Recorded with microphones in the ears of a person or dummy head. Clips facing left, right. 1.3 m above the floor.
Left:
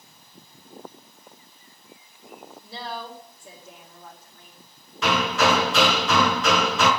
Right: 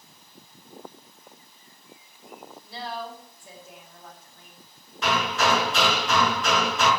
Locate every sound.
2.6 s a woman speaking: 75° left (ahead or behind), 4.5 m
5.0 s hammering: 75° left (ahead or behind), 3.5 m